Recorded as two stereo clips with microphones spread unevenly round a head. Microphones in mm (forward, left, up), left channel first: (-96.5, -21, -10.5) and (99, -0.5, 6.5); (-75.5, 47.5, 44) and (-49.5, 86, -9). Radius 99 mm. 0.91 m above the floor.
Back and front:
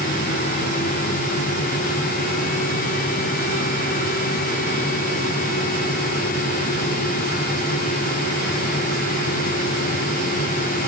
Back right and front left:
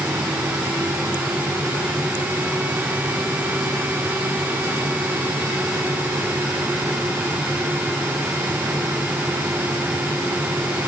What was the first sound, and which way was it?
Only background noise.